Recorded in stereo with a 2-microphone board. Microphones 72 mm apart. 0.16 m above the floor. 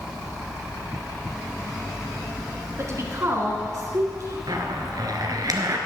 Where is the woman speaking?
45° right (ahead or behind), 1.6 m; by 4.4 s 50° right (ahead or behind), 1.8 m.